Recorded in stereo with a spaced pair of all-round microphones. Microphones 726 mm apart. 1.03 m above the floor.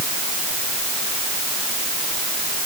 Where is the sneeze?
I don't hear a sneeze.